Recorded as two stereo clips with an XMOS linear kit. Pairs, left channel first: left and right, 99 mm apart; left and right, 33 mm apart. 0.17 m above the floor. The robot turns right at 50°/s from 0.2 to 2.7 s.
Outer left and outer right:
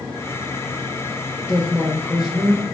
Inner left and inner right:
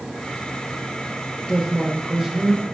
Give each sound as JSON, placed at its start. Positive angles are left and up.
{"t": 1.5, "sound": "a woman speaking", "azimuth_deg": 150, "distance_m": 3.0}